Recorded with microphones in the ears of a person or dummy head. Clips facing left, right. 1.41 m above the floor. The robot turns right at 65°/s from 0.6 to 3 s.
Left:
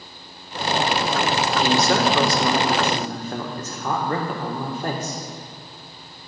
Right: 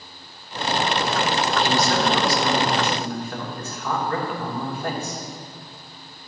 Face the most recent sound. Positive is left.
turn(degrees=140)